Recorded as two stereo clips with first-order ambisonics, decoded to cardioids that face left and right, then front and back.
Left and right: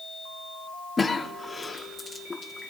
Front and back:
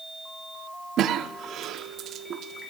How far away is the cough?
About 0.7 m.